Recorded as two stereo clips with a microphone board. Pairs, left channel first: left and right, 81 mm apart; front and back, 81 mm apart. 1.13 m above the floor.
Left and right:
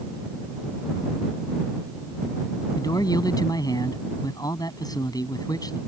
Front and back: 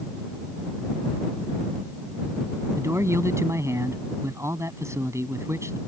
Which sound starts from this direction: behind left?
A man speaking, at 2.8 s.